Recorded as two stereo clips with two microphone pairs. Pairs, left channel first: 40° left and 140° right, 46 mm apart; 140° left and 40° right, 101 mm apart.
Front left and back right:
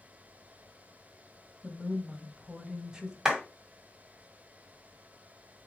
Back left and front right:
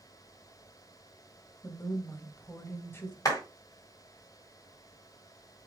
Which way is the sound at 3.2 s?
145° left.